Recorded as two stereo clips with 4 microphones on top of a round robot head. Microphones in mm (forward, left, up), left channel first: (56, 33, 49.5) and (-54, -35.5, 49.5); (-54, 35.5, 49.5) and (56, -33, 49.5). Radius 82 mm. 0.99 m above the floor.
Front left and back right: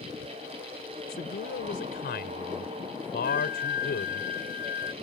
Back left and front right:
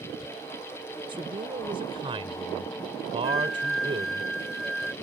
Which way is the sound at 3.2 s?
60° left.